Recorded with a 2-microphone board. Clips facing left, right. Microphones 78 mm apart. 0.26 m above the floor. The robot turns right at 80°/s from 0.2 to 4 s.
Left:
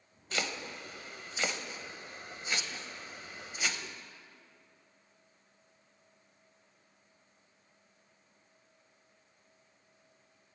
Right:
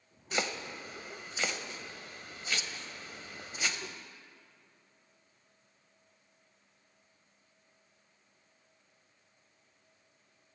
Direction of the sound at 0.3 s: 20° right (ahead or behind).